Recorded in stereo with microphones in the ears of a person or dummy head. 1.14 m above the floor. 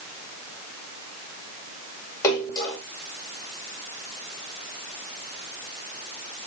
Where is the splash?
20° left (ahead or behind), 2 m.